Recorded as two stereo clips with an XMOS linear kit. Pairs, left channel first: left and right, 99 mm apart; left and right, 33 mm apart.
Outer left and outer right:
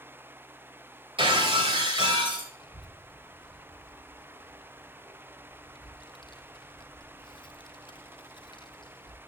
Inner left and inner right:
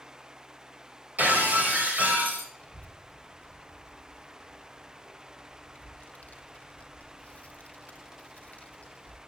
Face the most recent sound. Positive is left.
turn(degrees=45)  # may be behind; listen again after turning